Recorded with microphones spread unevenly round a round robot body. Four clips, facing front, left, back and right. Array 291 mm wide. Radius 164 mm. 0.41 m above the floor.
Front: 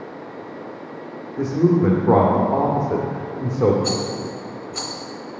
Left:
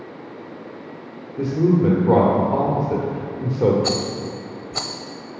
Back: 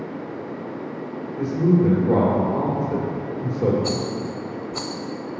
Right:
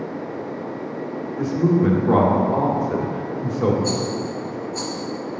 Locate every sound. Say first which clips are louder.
1.4 s a woman speaking: left 1 dB, front 2 dB; 25° left, 1.4 m
3.8 s a rattle: right 1 dB, front 1 dB; 125° left, 0.5 m